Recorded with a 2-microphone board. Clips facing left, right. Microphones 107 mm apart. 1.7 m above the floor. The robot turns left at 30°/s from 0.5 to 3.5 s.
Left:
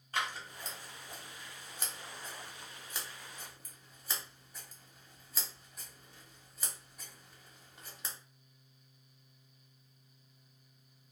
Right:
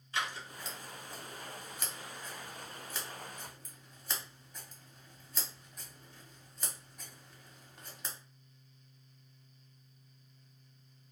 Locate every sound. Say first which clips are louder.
0.1 s scissors: even; 45° left (ahead or behind), 0.9 m; by 8.2 s 5° left (ahead or behind), 0.9 m